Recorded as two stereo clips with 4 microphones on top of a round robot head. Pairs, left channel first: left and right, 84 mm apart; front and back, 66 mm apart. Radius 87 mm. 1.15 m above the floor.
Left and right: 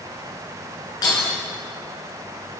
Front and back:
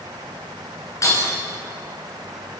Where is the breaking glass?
40° left, 8.5 m.